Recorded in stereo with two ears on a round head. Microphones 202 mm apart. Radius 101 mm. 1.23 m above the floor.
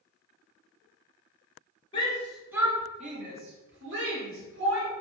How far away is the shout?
About 0.6 m.